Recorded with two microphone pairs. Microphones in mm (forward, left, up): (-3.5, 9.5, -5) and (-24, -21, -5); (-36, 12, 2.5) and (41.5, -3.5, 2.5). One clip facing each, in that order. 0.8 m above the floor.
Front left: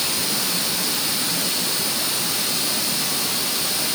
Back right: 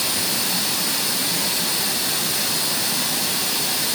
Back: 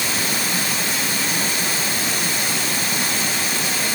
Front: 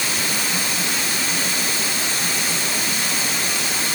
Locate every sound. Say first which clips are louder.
0.0 s running water: even, back 1 dB; 145° right, 6 m